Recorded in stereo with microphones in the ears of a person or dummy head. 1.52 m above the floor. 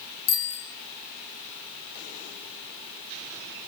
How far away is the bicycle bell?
About 5 m.